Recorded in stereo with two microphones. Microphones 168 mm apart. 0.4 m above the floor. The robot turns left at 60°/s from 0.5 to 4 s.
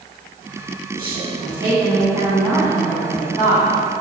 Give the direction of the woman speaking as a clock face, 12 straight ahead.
2 o'clock.